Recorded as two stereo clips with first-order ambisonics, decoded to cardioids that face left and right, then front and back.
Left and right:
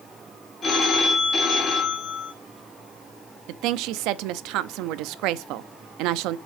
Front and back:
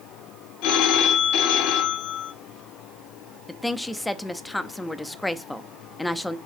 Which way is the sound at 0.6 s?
25° left.